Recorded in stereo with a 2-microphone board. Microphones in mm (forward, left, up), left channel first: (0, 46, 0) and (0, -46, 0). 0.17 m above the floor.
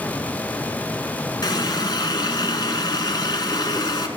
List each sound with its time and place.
1.4 s a running tap: 50° left (ahead or behind), 1.4 m